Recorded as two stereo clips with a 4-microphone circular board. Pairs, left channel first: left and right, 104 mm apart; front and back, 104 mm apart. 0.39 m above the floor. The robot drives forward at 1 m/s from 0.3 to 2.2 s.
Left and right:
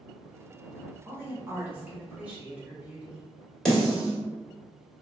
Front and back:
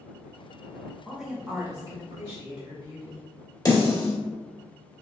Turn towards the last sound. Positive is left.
turn(degrees=10)